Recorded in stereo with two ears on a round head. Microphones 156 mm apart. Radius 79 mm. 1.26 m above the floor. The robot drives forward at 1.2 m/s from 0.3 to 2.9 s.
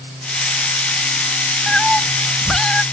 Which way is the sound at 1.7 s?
Centre (ahead or behind).